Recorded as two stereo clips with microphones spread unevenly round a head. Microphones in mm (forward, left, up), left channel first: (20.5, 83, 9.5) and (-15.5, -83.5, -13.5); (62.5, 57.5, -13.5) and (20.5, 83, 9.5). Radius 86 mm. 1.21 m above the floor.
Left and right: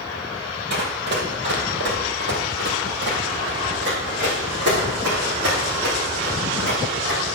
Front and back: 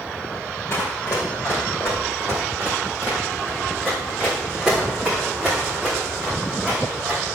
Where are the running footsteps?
90° right, 1.9 m; by 7.4 s 135° right, 4.5 m.